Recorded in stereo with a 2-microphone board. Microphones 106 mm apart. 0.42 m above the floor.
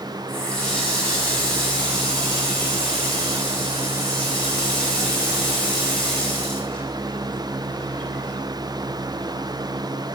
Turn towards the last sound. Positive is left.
turn(degrees=10)  # may be behind; listen again after turning